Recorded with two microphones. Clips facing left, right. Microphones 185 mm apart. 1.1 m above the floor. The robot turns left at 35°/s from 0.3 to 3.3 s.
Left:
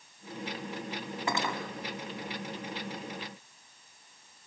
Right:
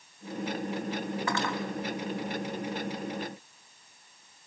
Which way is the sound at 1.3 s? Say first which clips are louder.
Left 1 dB; 20° left (ahead or behind).